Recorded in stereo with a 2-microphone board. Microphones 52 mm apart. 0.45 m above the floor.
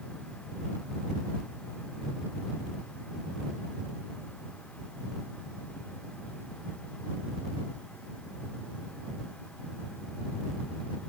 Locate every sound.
Only background noise.